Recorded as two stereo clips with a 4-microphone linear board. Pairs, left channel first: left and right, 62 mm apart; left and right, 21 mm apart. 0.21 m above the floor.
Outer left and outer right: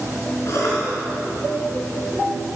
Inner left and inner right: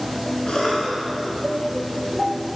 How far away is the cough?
About 3 m.